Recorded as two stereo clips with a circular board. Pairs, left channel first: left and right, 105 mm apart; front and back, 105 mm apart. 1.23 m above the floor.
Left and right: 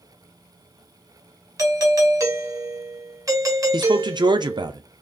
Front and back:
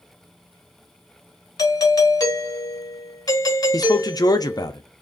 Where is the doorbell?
40° right, 0.8 m.